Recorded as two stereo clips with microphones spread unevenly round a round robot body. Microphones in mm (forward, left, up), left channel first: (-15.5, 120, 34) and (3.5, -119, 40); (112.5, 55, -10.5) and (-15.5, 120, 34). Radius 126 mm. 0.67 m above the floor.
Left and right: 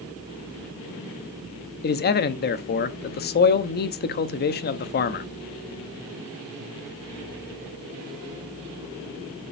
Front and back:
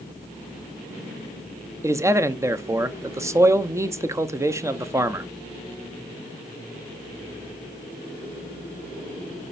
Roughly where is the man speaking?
Left.